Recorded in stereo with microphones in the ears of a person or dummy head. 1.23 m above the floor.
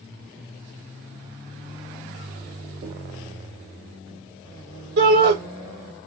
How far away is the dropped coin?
About 0.5 m.